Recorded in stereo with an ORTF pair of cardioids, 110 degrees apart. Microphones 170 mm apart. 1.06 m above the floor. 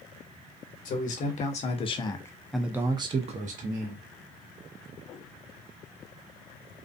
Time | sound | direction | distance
0.8 | a man speaking | 55° left | 1.1 m